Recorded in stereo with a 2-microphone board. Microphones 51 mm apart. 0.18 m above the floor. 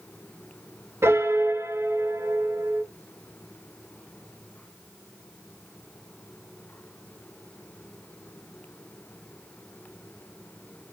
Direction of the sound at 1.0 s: 60° right (ahead or behind).